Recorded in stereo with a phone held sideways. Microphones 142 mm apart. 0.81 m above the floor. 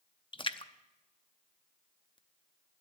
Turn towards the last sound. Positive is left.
turn(degrees=35)  # may be behind; listen again after turning